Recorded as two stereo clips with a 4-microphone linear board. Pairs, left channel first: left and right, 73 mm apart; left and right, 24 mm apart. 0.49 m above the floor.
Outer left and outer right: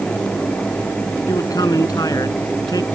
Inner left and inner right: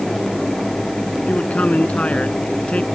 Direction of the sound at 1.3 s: 65° left (ahead or behind).